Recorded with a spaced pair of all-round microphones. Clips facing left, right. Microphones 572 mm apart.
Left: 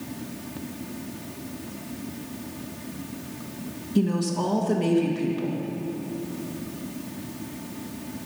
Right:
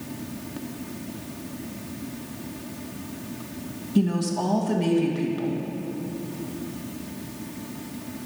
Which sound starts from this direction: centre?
A woman speaking, at 4.0 s.